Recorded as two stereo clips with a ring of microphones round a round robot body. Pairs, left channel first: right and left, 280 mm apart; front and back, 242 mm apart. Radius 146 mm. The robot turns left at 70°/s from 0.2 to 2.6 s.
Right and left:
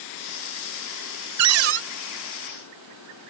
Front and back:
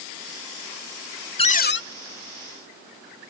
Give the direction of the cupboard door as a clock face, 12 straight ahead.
10 o'clock.